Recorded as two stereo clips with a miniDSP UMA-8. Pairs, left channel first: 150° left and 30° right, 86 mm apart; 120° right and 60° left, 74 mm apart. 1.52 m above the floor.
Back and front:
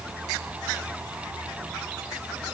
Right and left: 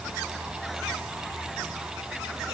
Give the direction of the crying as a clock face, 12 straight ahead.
No crying in this recording.